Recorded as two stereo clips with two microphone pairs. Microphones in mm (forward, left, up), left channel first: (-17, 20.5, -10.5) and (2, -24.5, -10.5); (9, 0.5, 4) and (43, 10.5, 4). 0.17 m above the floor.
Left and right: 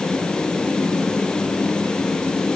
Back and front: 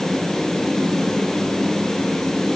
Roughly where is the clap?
I don't hear a clap.